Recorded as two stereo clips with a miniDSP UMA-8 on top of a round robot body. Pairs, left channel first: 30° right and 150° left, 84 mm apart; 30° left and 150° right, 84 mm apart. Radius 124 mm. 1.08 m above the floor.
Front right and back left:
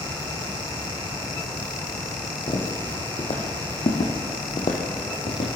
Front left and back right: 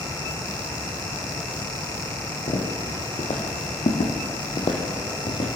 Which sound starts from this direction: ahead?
Footsteps, at 2.5 s.